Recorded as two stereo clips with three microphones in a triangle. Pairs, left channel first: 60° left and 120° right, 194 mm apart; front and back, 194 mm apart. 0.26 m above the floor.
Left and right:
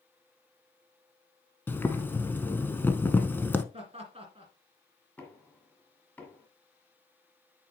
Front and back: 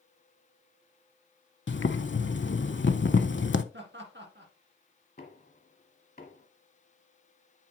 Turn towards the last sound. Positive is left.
turn(degrees=-20)